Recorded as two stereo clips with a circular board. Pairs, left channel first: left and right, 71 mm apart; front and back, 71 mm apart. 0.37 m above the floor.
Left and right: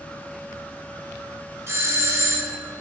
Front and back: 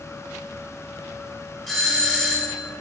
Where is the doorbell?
95° right, 1.5 m.